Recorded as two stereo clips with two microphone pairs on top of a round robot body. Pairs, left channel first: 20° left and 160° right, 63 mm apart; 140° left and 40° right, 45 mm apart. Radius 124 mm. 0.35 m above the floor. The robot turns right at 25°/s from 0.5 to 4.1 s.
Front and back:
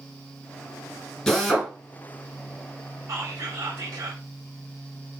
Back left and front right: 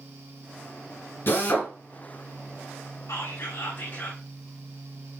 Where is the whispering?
160° left, 5.5 m; by 4.2 s 170° right, 5.5 m.